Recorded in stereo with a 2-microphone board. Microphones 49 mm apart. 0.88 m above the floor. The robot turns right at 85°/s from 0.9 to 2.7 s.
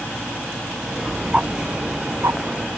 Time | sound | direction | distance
1.3 | ticking | 20° right (ahead or behind) | ?